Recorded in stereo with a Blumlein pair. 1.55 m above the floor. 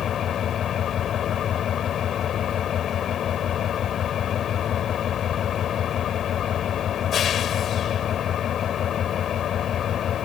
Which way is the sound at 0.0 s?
25° left.